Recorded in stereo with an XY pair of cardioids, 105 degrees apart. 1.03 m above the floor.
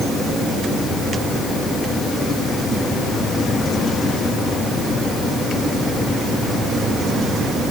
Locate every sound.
Only background noise.